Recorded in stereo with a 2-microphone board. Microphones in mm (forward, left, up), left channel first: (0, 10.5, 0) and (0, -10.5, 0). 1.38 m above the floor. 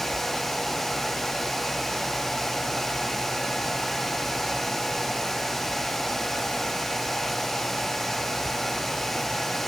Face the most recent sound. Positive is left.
No sound to turn to.